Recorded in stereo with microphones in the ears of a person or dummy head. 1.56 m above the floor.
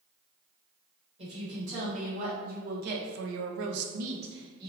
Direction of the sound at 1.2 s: 35° right (ahead or behind).